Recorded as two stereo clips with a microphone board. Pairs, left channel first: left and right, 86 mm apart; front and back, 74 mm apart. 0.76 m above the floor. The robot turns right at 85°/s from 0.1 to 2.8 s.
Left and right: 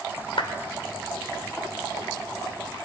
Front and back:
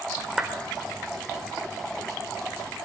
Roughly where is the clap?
Left.